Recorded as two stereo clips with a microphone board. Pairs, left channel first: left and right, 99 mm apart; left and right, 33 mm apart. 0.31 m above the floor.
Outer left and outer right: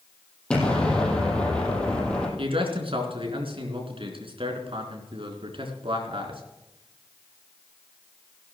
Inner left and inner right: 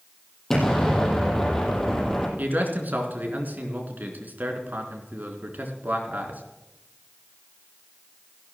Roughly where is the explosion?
Centre.